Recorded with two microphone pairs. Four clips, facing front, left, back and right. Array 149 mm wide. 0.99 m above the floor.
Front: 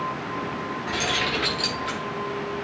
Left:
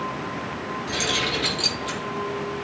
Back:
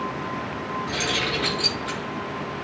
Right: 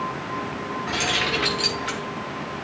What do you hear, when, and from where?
0.9 s keys jangling: 80° right, 5 m; by 2.0 s 65° right, 5 m